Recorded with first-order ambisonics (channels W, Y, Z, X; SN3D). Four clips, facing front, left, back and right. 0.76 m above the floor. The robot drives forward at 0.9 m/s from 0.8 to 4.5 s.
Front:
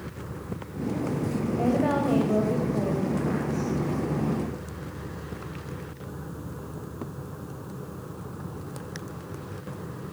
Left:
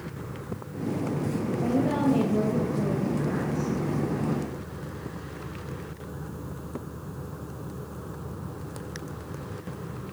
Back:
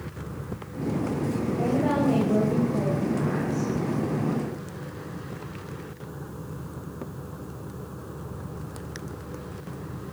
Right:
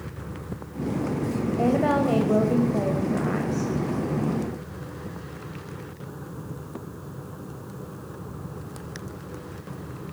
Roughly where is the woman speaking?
Right.